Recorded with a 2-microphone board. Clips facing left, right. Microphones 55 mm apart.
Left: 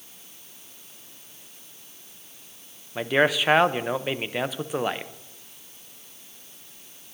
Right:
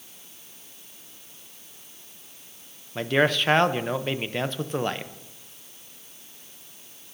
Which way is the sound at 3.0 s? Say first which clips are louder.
Left 1 dB; 10° left (ahead or behind).